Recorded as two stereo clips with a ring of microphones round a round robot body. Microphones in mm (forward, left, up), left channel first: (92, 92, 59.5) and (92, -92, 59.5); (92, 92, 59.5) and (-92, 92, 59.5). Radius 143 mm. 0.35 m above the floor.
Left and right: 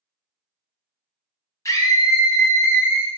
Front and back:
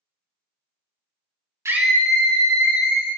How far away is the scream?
About 0.8 m.